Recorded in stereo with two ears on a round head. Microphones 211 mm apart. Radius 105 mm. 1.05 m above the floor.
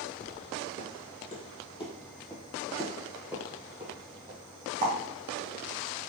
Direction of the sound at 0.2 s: 45° left (ahead or behind).